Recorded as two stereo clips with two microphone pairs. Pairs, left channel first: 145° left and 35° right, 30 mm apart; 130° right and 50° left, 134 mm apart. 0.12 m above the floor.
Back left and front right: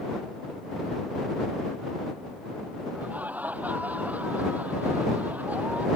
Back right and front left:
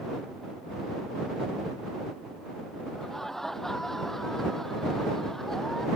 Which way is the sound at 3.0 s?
45° right.